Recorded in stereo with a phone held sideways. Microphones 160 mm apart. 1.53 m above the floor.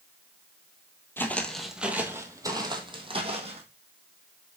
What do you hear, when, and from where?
1.2 s footsteps: 15° left (ahead or behind), 1.6 m; by 3.6 s 35° right (ahead or behind), 2.5 m